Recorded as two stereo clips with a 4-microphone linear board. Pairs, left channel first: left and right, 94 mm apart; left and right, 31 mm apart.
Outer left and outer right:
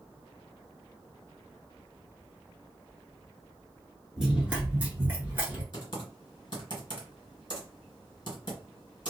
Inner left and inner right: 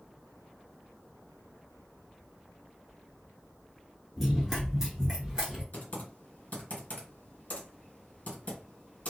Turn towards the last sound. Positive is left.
turn(degrees=55)  # may be behind; listen again after turning